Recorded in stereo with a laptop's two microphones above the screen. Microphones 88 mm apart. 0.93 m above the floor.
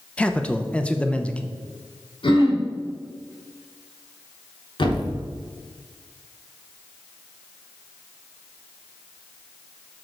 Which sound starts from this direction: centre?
A man speaking, at 0.2 s.